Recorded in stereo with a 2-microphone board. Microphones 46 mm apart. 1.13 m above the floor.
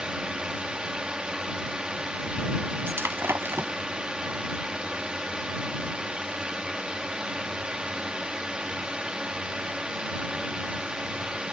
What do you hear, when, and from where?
0.0 s a drone: 20° right (ahead or behind)
2.9 s breaking glass: 60° right (ahead or behind)